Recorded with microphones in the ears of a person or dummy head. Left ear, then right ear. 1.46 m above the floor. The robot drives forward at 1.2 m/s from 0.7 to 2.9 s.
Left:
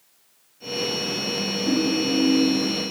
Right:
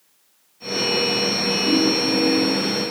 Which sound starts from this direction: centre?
A ringtone, at 1.7 s.